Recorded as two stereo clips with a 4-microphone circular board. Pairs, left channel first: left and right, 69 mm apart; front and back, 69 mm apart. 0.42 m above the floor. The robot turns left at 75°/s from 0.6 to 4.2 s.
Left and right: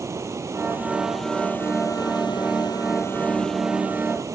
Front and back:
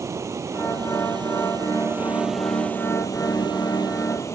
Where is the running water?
135° right; by 4.3 s 45° right.